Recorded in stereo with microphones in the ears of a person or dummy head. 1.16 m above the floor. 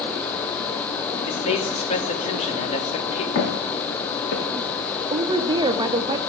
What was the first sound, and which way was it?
A man speaking, 35° left (ahead or behind).